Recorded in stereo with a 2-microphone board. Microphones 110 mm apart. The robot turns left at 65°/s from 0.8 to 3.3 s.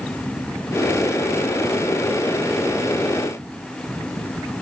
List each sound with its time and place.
Only background noise.